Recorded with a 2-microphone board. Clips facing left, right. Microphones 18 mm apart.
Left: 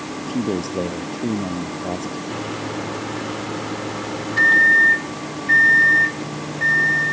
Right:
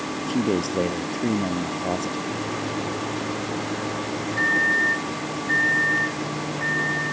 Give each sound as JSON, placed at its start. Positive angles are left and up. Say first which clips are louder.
{"t": 0.2, "sound": "a man speaking", "louder": "even", "side_deg": -15}
{"t": 2.3, "sound": "a microwave", "louder": "left 1 dB", "side_deg": 40}